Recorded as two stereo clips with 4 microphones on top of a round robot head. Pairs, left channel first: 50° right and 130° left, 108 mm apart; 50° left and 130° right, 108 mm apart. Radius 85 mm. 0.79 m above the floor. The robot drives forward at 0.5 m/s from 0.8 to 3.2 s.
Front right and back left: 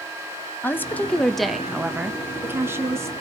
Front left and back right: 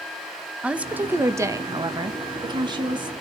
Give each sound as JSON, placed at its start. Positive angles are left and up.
{"t": 0.6, "sound": "a woman speaking", "azimuth_deg": -80, "distance_m": 0.8}